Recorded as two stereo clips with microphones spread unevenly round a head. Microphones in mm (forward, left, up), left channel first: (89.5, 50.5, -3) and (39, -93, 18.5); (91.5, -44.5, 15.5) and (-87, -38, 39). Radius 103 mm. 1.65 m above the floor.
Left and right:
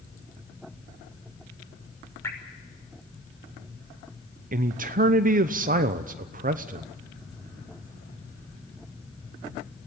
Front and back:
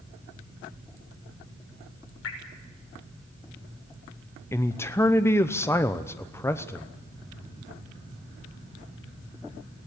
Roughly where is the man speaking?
Right.